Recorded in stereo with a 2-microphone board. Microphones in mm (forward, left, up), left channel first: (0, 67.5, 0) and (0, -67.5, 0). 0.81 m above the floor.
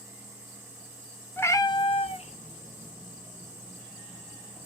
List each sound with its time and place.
1.4 s a cat meowing: 15° left (ahead or behind), 0.6 m; by 4.7 s 45° left (ahead or behind), 1.8 m